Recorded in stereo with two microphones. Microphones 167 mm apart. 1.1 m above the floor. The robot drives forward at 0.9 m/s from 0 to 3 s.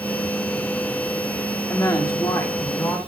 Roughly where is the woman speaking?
Left.